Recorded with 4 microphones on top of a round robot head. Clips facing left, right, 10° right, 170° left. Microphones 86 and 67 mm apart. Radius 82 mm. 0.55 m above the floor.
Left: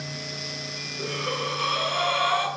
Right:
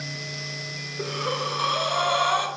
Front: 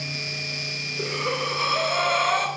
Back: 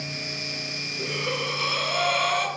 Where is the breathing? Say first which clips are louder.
Right 2 dB, front 2 dB; 45° right, 0.9 m.